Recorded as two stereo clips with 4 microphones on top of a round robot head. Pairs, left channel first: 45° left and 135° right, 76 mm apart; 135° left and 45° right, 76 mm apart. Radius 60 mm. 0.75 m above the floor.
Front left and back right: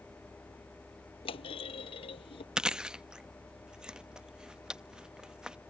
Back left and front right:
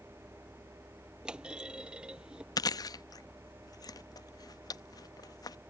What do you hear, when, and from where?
1.2 s a clunk: 35° left
2.6 s chewing: 145° left